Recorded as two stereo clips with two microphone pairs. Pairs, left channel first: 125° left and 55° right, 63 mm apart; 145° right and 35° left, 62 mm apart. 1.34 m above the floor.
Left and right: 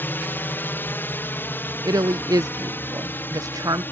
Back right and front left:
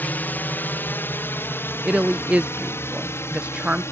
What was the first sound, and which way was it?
A drone, 170° left.